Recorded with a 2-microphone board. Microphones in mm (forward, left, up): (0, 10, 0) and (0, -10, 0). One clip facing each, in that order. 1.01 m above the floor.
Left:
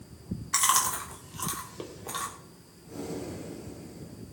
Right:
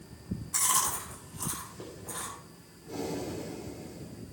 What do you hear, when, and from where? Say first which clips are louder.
0.5 s chewing: left 4 dB; 60° left (ahead or behind), 3 m
2.9 s breathing: right 2 dB; 70° right (ahead or behind), 3 m